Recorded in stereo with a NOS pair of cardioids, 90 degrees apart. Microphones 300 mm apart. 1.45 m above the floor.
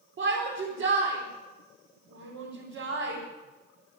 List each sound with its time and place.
0.2 s a shout: 45° right, 4.5 m